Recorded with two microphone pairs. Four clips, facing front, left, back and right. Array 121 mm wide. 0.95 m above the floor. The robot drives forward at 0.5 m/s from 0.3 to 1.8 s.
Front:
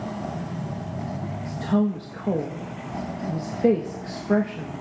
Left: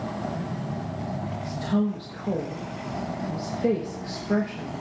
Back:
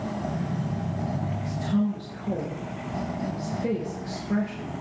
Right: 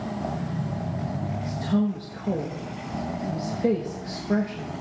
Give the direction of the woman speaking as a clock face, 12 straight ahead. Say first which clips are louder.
Right 1 dB, front 4 dB; 12 o'clock.